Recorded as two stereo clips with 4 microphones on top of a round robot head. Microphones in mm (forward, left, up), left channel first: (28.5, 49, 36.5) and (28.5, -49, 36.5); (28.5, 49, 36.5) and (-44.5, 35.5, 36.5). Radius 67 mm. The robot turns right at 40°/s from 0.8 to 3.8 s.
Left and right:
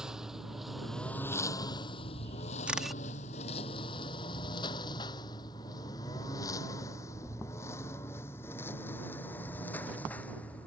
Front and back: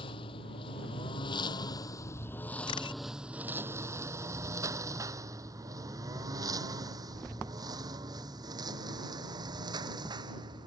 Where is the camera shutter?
10° right; by 3.0 s 5° left.